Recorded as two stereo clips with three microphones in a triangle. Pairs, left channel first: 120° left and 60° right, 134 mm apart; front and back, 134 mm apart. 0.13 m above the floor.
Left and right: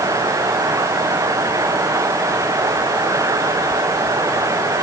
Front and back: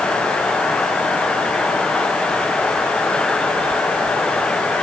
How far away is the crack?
No crack in this recording.